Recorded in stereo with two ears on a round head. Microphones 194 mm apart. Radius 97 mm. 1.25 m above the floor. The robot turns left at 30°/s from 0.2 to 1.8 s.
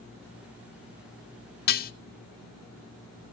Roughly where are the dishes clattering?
Left.